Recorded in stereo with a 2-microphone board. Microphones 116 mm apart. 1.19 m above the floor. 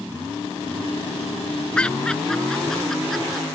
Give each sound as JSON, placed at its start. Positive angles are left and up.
{"t": 1.8, "sound": "laughter", "side_deg": 10}